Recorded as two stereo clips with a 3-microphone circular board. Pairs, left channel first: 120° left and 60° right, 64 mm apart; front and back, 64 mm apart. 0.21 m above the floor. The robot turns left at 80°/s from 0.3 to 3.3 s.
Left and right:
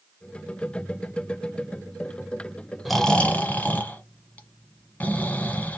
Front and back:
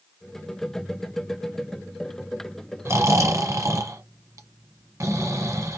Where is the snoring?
145° right, 0.8 m; by 5.8 s straight behind, 0.8 m.